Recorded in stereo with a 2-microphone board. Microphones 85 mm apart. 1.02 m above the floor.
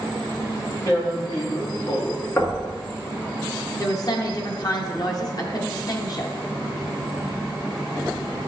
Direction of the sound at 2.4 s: 35° left (ahead or behind).